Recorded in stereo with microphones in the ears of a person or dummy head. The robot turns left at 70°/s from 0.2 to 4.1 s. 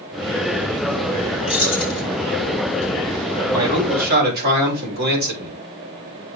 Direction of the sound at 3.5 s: 15° right.